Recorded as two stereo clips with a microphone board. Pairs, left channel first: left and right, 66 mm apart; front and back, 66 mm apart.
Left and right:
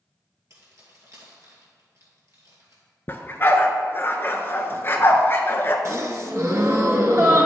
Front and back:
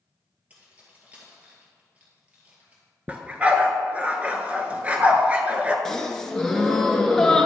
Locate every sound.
0.5 s keys jangling: 115° right, 2 m
3.1 s a dog barking: 125° left, 0.7 m
5.8 s a gasp: 80° right, 0.8 m